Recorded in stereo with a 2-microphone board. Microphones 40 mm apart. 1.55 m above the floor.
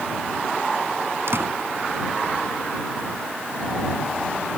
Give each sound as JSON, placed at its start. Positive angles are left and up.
{"t": 1.3, "sound": "a door slam", "side_deg": -70}